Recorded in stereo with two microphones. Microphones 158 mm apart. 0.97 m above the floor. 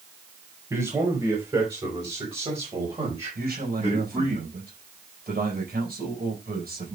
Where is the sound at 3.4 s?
80° right, 5 m.